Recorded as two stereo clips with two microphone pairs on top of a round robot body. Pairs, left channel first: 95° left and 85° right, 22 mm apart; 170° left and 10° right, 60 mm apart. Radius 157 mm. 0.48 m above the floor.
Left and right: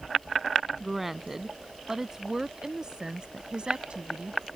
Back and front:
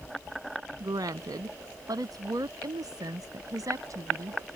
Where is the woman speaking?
Straight ahead; by 4.5 s 45° right.